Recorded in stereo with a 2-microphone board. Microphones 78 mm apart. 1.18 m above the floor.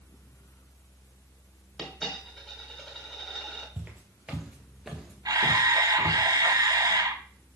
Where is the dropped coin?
Centre (ahead or behind), 1.8 m.